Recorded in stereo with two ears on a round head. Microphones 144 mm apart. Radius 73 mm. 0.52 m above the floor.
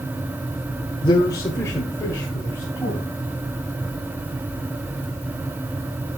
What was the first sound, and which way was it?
A man speaking, 25° left (ahead or behind).